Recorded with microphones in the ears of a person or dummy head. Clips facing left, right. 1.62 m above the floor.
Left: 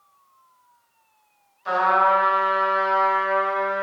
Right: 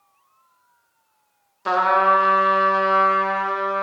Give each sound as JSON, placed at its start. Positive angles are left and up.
{"t": 1.6, "sound": "a trumpet", "side_deg": -75, "distance_m": 0.6}